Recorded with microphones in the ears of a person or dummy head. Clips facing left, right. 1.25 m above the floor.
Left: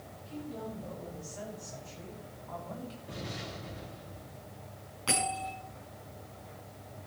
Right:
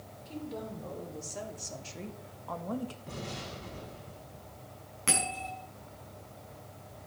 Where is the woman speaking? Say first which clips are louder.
Right 1 dB; 70° right (ahead or behind), 4.5 m; by 3.0 s 60° right (ahead or behind), 1.5 m.